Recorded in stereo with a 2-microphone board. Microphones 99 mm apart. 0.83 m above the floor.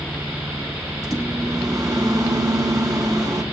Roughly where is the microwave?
Right.